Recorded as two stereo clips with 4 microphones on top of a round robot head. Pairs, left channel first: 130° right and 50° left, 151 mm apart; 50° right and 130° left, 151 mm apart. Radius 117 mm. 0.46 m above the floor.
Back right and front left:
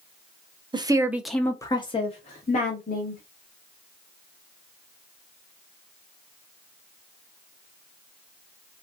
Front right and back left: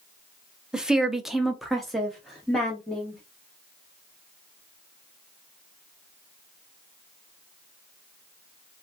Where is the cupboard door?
I don't hear a cupboard door.